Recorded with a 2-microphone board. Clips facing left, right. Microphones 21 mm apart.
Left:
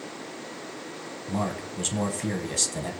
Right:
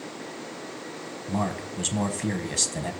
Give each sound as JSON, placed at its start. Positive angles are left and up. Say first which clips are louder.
{"t": 1.3, "sound": "a man speaking", "louder": "right 1 dB", "side_deg": -10, "distance_m": 1.1}